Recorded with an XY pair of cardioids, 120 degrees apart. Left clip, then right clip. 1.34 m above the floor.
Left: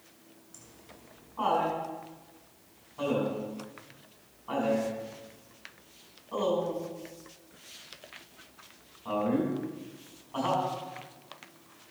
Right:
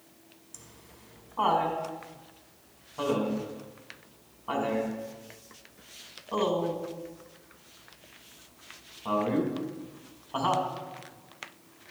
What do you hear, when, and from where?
0.5 s laughter: 35° right, 4.5 m